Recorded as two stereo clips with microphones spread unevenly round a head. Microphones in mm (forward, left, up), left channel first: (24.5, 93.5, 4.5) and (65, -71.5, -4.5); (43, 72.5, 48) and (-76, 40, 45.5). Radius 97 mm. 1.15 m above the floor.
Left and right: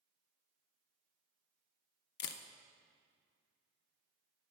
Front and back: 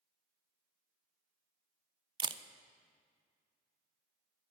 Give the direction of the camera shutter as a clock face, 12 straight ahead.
7 o'clock.